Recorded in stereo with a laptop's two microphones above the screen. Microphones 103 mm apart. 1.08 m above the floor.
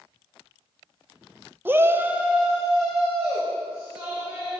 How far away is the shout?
About 0.5 m.